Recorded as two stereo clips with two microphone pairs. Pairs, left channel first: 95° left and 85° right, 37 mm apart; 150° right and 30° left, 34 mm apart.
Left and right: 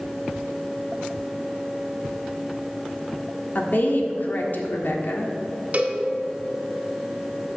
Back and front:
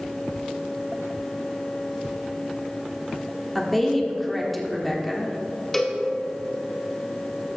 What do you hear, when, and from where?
3.5 s a woman speaking: 120° left, 1.4 m
5.7 s a cowbell: 80° right, 1.3 m